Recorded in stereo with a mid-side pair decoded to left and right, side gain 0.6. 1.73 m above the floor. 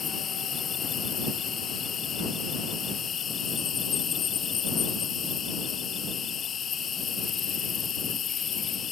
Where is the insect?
45° left.